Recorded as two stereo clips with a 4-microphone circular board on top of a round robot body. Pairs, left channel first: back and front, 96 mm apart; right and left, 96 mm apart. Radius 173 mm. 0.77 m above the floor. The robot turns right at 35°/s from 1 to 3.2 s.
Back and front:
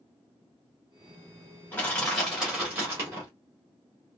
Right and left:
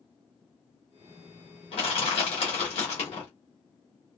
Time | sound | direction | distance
1.7 | crushing | 110° right | 1.1 m